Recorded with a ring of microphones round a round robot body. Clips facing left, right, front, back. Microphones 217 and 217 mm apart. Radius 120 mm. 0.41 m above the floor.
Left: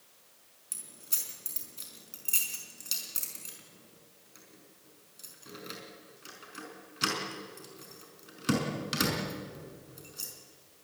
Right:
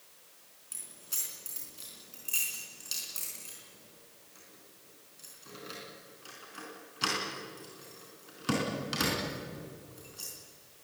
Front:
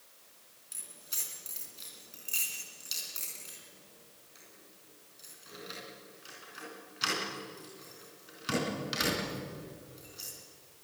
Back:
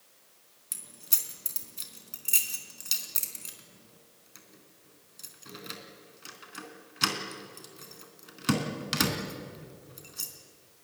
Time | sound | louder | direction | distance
0.7 | keys jangling | left 2 dB, back 3 dB | 160° left | 4 m